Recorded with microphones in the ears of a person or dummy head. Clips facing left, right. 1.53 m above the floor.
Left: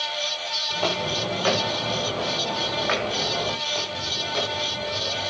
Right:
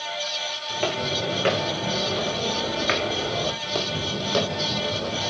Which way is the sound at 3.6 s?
50° right (ahead or behind).